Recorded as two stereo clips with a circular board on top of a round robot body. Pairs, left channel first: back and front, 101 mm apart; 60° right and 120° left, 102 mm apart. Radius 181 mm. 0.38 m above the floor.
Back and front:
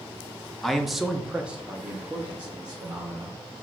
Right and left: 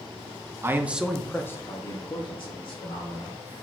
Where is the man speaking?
95° left, 0.8 m; by 3.4 s 75° right, 1.7 m.